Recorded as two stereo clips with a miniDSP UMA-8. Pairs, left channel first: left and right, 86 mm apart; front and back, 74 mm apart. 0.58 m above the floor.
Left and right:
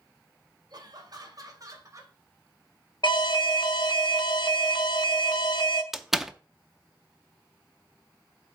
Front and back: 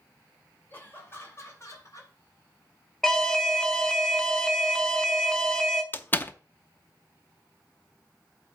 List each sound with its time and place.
0.7 s laughter: 65° right, 2.5 m; by 2.1 s 40° right, 3.5 m
3.0 s an alarm: 80° left, 0.9 m
5.9 s a door slam: 10° right, 0.5 m